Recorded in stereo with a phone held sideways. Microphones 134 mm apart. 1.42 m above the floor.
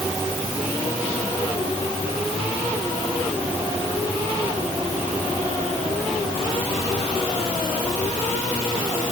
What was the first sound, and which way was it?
Only background noise.